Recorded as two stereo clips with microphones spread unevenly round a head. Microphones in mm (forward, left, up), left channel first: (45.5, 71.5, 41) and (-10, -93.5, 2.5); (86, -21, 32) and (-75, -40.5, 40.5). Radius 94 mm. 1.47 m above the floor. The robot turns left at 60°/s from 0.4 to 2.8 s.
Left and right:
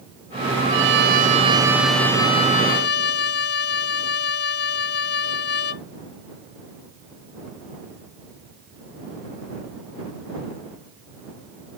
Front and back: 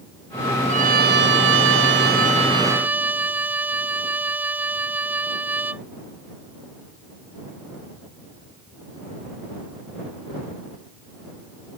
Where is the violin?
125° right; by 5.8 s 105° left.